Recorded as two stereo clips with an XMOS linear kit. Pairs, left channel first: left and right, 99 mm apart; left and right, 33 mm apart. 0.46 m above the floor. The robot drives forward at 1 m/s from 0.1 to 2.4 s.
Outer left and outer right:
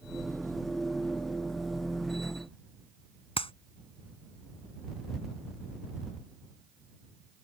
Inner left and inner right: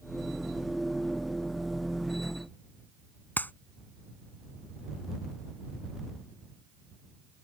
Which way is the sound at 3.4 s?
80° left.